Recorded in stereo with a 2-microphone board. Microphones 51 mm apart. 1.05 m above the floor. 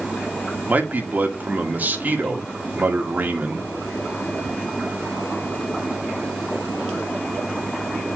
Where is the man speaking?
40° right (ahead or behind), 2 m.